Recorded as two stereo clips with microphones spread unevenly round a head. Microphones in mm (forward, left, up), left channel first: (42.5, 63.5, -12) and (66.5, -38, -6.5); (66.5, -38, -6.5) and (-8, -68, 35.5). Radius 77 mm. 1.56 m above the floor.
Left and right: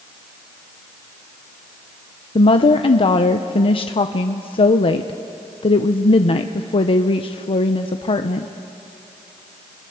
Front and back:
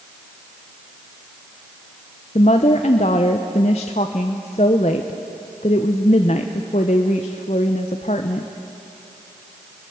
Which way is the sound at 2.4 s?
70° left.